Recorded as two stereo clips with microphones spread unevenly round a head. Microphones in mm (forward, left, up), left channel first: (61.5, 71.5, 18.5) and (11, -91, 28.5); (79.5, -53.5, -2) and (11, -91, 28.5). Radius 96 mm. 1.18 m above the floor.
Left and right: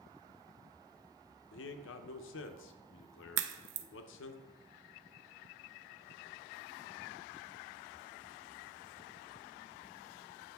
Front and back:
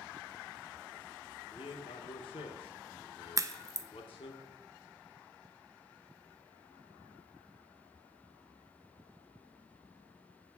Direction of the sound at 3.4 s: 100° right.